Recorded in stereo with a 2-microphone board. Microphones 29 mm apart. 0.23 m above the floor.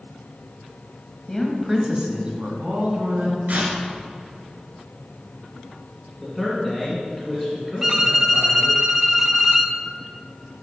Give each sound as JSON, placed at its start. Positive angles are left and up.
{"t": 1.3, "sound": "a woman speaking", "side_deg": 20, "distance_m": 1.2}
{"t": 3.5, "sound": "tearing paper", "side_deg": -70, "distance_m": 2.0}
{"t": 6.2, "sound": "a man speaking", "side_deg": 0, "distance_m": 2.0}
{"t": 7.8, "sound": "a violin", "side_deg": -15, "distance_m": 0.5}